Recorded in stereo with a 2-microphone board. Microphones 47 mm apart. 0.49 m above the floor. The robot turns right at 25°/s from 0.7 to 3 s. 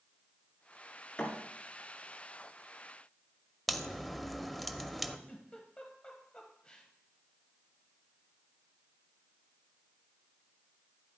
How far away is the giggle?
About 1.3 m.